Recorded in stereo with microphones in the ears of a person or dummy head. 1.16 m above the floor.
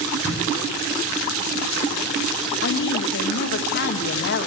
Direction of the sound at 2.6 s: 55° left (ahead or behind).